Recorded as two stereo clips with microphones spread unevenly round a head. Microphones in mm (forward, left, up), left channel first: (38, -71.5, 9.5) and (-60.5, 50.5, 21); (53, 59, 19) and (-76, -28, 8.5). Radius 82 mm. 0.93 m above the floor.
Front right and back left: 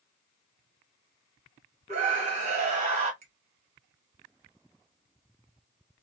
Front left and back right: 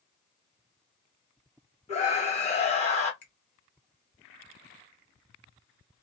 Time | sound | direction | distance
1.9 | a scream | 80° left | 1.3 m
3.2 | a finger snap | 75° left | 1.0 m